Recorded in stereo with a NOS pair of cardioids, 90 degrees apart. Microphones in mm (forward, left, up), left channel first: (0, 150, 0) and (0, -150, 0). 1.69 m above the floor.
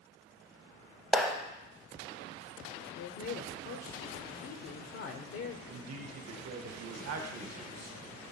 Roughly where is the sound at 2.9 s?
Ahead left.